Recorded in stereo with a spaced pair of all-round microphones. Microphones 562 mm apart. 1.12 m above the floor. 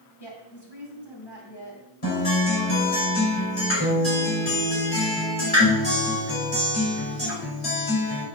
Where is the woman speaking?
45° left (ahead or behind), 6.5 m.